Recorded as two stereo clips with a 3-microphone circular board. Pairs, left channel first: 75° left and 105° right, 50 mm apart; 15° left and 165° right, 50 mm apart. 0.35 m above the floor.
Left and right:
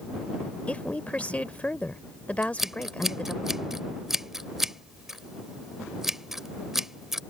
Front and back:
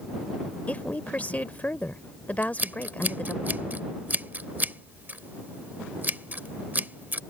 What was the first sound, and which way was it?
A woman speaking, 40° left.